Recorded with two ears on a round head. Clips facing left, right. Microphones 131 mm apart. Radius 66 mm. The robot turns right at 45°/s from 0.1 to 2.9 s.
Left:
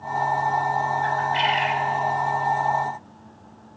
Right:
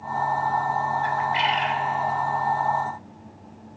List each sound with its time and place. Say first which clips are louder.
1.0 s a bird: left 1 dB; 20° right, 0.9 m; by 1.9 s 15° left, 0.9 m